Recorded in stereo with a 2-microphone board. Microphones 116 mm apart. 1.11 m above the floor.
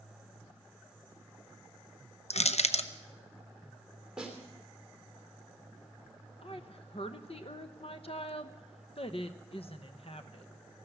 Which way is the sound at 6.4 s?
55° left (ahead or behind).